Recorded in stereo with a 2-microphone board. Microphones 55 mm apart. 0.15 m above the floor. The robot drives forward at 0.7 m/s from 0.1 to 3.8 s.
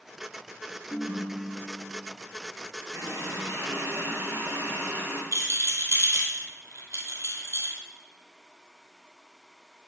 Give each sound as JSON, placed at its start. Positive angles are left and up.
{"t": 0.9, "sound": "a ringtone", "side_deg": 55, "distance_m": 1.5}
{"t": 2.9, "sound": "a running tap", "side_deg": -65, "distance_m": 1.9}
{"t": 5.3, "sound": "a rattle", "side_deg": -70, "distance_m": 1.5}